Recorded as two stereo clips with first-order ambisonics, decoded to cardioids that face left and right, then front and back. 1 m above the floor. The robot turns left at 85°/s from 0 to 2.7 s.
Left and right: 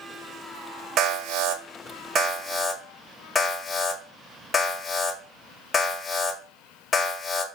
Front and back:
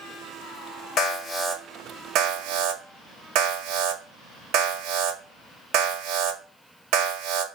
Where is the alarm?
45° right, 0.9 m; by 7.5 s 165° left, 0.9 m.